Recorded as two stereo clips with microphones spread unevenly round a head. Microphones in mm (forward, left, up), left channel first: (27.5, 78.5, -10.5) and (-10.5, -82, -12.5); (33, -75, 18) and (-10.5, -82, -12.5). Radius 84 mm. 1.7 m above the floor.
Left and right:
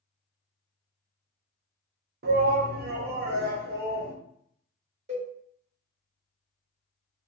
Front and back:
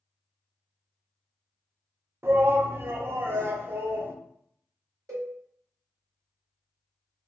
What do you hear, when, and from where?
2.2 s a shout: 115° right, 0.6 m
5.1 s a cowbell: 140° right, 1.4 m